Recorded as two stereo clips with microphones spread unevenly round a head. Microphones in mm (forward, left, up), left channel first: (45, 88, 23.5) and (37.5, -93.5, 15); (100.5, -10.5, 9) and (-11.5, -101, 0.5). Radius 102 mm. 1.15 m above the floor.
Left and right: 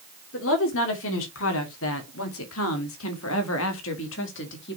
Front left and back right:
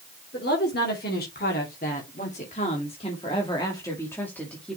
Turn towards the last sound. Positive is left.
turn(degrees=130)